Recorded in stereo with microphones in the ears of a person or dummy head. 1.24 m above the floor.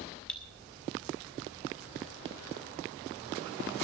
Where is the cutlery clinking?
5° left (ahead or behind), 1.3 m.